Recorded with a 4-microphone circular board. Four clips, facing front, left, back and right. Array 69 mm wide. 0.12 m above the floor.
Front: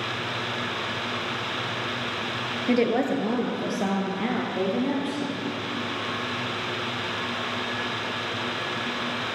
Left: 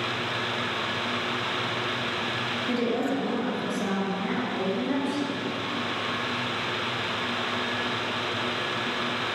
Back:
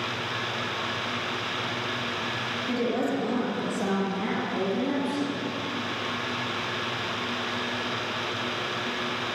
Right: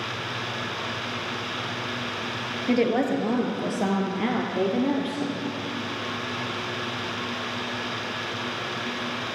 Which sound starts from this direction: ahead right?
A woman speaking, at 2.7 s.